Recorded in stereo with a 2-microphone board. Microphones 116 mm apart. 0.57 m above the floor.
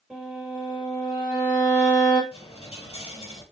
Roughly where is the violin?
Centre.